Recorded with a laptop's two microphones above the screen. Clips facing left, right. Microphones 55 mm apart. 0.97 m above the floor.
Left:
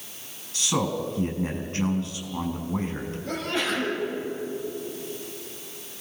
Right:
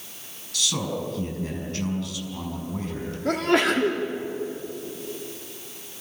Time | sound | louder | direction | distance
0.5 | a man speaking | left 2 dB | 30° left (ahead or behind) | 6 m
3.2 | a sneeze | right 8 dB | 75° right (ahead or behind) | 2 m